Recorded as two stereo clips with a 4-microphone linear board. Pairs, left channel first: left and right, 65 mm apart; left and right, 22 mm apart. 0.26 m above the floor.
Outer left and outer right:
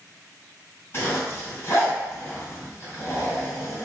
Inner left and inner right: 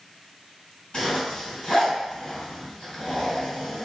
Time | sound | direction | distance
0.9 | a zipper | 35° left (ahead or behind) | 2.0 m